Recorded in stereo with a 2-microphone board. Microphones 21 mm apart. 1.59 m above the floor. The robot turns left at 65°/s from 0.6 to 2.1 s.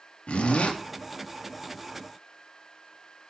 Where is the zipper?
85° left, 3 m; by 0.8 s 75° left (ahead or behind), 3 m.